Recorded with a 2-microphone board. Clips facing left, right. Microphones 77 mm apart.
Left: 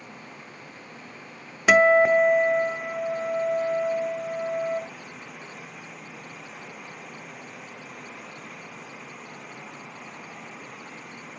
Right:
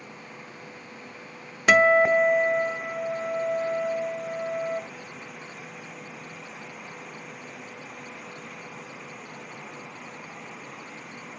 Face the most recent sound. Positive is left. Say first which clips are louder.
# left 1 dB
turn(degrees=5)  # may be behind; listen again after turning